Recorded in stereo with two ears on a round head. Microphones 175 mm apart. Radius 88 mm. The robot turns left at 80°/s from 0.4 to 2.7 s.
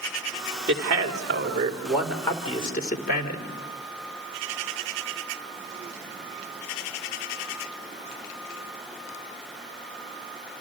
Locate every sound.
0.7 s a man speaking: 65° right, 3 m; by 3.5 s 130° left, 3 m